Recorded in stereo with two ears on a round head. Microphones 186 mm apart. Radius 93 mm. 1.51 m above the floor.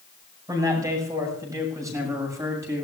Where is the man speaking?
15° right (ahead or behind), 6 m.